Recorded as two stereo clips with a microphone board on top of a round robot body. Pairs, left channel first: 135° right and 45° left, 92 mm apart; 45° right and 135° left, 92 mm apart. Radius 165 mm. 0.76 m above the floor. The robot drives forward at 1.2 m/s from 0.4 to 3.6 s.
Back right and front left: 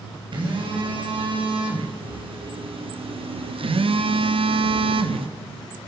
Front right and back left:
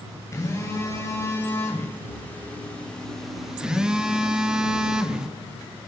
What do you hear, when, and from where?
0.3 s a phone buzzing: 15° left, 5 m; by 5.3 s 55° left, 1.7 m